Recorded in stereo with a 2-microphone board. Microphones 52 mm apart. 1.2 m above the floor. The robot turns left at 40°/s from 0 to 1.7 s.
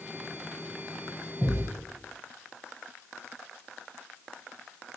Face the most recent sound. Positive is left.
turn(degrees=5)  # may be behind; listen again after turning